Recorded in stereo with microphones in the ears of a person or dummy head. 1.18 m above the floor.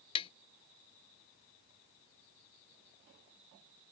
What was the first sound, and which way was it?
Tapping, 35° left (ahead or behind).